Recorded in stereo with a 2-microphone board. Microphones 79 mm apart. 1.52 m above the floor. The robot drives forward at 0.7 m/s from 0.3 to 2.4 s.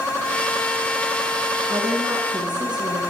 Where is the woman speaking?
65° right (ahead or behind), 1.4 m; by 3.0 s 70° right (ahead or behind), 1.3 m.